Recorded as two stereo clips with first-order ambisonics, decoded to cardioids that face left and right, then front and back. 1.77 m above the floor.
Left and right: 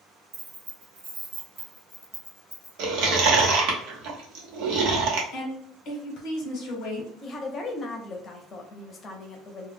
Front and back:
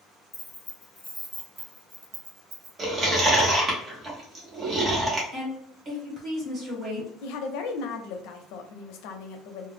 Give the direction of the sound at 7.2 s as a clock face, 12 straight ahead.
11 o'clock.